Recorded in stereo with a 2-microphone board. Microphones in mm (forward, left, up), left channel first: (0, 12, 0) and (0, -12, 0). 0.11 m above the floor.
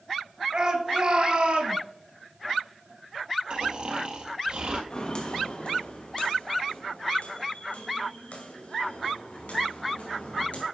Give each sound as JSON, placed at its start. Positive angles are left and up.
{"t": 0.5, "sound": "a shout", "side_deg": -35, "distance_m": 1.5}
{"t": 3.5, "sound": "snoring", "side_deg": -45, "distance_m": 1.6}
{"t": 4.9, "sound": "footsteps", "side_deg": 40, "distance_m": 2.0}